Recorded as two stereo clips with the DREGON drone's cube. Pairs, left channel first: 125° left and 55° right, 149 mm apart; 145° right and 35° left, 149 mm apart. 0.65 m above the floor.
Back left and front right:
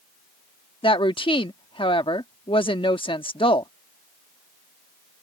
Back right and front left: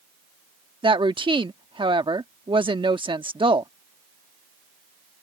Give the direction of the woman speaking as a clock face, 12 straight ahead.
9 o'clock.